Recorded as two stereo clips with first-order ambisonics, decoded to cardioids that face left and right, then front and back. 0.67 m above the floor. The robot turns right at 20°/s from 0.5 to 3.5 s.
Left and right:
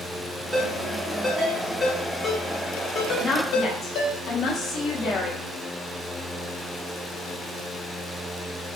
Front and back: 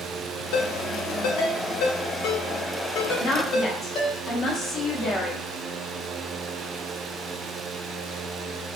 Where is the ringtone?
15° right, 0.8 m; by 4.2 s 45° left, 0.8 m.